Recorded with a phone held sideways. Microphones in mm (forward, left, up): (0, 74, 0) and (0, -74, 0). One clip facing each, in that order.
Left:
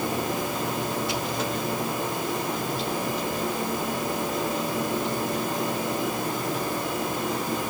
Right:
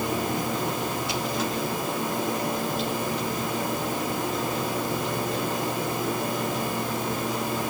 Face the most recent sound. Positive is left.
No sound to turn to.